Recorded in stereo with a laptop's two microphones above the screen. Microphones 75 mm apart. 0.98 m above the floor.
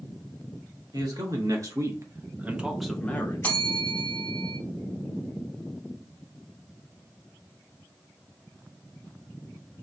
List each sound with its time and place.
0.9 s a man speaking: 60° right (ahead or behind), 1.1 m; by 3.6 s 40° left (ahead or behind), 0.6 m
3.4 s a bell: 25° left (ahead or behind), 0.8 m